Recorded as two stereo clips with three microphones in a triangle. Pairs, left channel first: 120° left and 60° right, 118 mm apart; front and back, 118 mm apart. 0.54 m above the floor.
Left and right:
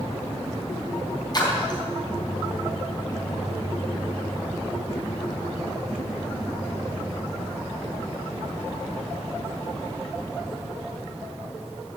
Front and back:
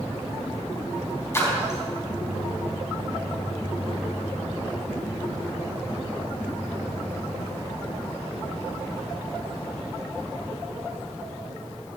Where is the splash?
65° left, 4 m.